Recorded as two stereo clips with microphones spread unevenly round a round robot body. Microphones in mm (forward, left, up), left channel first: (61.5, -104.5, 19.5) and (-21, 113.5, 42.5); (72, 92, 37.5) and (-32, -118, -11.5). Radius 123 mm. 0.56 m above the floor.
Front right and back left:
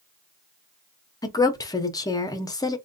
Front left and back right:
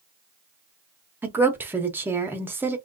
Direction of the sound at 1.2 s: 90° right.